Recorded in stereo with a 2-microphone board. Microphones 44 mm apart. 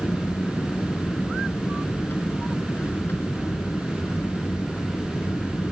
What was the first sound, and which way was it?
An aircraft, 55° left (ahead or behind).